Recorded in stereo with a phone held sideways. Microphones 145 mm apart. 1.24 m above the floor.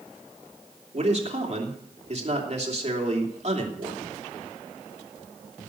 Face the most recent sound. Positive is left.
turn(degrees=-50)  # may be behind; listen again after turning